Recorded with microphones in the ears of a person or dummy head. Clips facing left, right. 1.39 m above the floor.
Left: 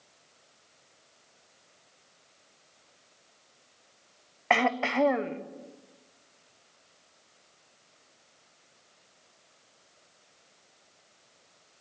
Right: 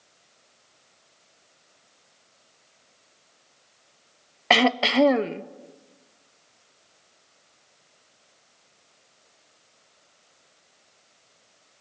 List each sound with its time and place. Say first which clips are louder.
4.5 s throat clearing: right 5 dB; 50° right (ahead or behind), 0.8 m